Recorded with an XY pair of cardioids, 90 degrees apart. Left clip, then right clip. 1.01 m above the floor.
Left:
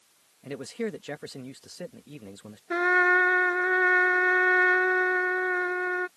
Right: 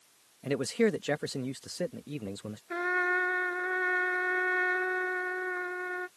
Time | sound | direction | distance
0.4 | a man speaking | 45° right | ?
2.7 | a trumpet | 55° left | ?